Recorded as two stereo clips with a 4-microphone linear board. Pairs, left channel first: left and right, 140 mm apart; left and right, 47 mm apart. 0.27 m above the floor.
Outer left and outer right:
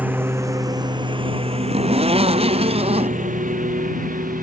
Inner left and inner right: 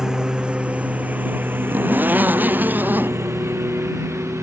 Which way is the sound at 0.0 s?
10° right (ahead or behind).